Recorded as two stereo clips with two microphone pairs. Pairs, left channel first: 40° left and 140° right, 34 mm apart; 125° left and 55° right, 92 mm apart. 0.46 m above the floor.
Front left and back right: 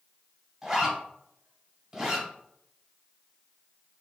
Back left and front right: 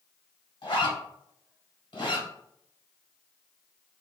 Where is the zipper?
155° left, 1.5 m.